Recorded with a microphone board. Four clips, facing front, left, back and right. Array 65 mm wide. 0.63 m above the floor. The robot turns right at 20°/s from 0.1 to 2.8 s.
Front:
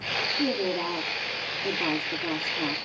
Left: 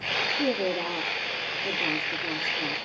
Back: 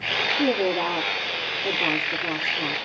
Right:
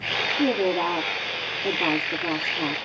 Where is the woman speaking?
120° right, 1.7 m; by 2.9 s 70° right, 1.7 m.